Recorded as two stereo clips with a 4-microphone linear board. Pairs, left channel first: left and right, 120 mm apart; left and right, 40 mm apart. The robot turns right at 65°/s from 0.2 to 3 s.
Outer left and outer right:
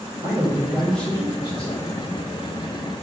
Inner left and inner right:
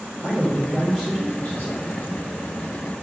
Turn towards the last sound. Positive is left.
turn(degrees=135)